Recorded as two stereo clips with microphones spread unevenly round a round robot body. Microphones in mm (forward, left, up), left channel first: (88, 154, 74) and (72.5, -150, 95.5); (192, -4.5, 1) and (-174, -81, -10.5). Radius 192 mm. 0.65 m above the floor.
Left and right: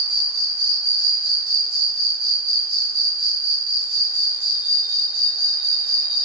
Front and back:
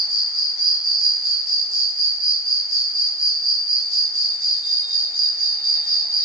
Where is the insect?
50° right, 1.0 m.